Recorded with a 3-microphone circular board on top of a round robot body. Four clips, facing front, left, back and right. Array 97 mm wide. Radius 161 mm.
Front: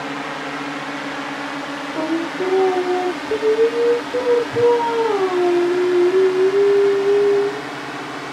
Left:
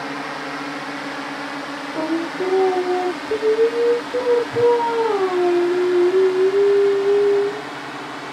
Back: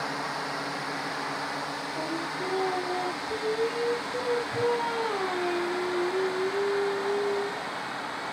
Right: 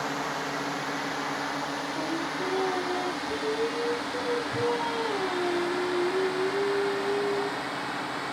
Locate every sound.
0.0 s a drone: 40° left; by 8.3 s 30° left
1.9 s singing: 50° left